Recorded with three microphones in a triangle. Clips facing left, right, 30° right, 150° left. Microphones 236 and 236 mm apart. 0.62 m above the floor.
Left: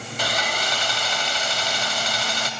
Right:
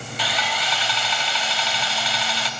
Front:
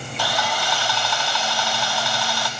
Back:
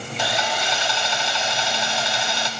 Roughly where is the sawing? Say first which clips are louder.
Left 2 dB, even; left.